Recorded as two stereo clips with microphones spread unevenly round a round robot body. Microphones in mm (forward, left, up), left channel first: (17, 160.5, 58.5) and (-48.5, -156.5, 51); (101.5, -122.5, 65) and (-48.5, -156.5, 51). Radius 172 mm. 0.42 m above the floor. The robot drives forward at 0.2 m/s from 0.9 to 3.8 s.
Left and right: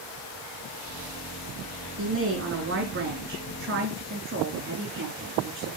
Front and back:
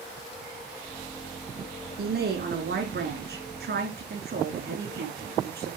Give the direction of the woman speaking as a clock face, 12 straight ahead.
5 o'clock.